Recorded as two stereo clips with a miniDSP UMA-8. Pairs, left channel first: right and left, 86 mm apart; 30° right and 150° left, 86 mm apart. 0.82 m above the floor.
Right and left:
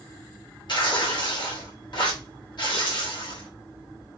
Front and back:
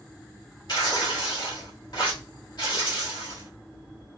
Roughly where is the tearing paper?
Ahead right.